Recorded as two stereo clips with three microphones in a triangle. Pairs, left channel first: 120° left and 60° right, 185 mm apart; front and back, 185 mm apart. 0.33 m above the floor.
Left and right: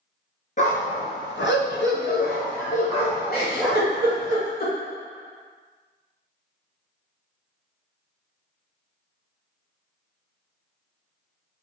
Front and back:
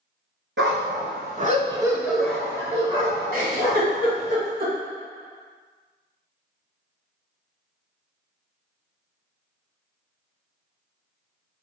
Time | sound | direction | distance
0.6 | a dog barking | 170° left | 1.2 m
3.3 | a giggle | 150° left | 1.5 m